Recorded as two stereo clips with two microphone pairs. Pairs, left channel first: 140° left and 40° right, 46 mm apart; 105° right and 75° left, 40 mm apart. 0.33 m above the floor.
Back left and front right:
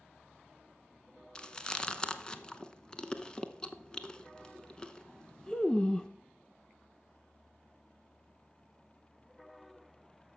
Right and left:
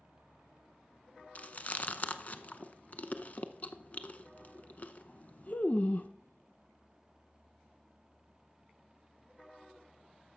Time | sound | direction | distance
1.4 | chewing | 155° right | 0.7 m